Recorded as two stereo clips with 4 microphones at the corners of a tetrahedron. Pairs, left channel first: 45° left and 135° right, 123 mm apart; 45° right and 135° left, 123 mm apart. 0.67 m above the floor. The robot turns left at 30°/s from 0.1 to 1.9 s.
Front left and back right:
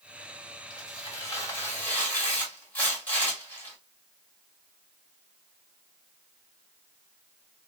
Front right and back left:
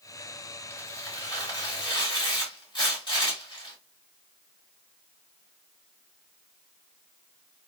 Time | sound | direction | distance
0.7 | tearing paper | 15° left | 1.4 m